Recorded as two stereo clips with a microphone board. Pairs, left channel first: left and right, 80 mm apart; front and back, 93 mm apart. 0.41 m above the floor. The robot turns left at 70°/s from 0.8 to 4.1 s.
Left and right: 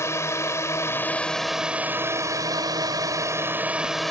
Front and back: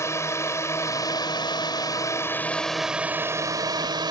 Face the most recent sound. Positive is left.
turn(degrees=175)